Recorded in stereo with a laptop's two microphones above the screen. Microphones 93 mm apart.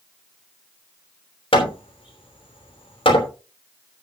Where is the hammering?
75° left (ahead or behind), 3 m.